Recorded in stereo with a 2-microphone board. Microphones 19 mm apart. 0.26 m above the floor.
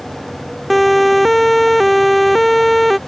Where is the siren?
Centre (ahead or behind).